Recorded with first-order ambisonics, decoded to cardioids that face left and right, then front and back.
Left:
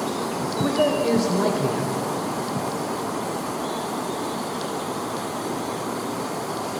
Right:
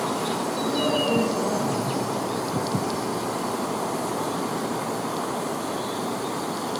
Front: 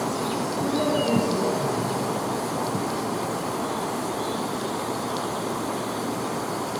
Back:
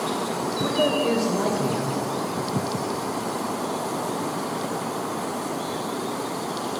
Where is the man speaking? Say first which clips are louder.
Left 4 dB, back 3 dB; 120° left, 1.8 m.